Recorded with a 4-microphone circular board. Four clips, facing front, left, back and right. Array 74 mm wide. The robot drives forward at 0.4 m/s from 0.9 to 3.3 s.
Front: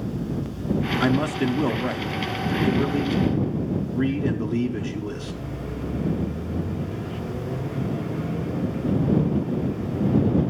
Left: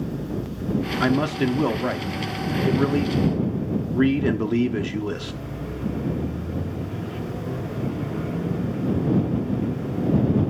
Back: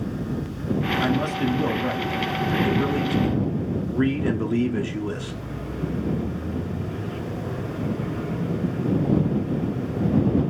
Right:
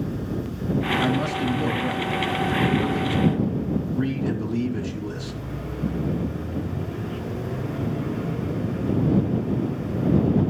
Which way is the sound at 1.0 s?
60° left.